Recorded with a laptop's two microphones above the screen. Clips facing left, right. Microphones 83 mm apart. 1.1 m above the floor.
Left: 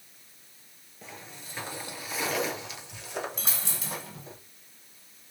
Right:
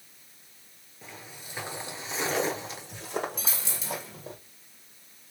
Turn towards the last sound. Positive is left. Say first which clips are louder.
# even
turn(degrees=60)  # may be behind; listen again after turning